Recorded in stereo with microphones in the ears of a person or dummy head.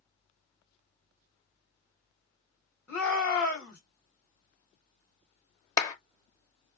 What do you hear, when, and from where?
2.9 s a shout: 10° left (ahead or behind), 2.5 m
5.8 s a clap: 20° left (ahead or behind), 0.8 m